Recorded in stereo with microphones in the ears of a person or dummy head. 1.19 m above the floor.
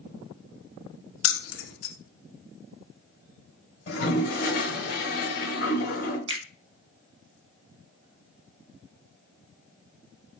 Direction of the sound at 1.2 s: 80° left.